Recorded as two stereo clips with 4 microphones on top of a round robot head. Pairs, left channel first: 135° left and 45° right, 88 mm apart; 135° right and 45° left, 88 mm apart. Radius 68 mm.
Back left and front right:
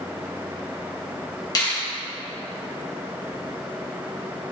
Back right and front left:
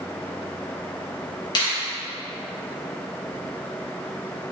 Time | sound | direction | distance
1.6 | a finger snap | straight behind | 3 m